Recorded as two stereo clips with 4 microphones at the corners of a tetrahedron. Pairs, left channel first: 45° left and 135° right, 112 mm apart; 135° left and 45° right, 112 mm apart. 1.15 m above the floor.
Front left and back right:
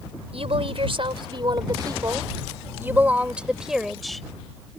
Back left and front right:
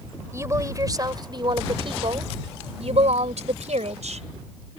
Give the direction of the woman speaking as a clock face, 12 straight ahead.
4 o'clock.